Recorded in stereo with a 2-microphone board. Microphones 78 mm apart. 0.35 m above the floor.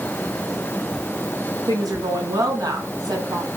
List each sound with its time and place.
1.7 s a woman speaking: 55° right (ahead or behind), 4.5 m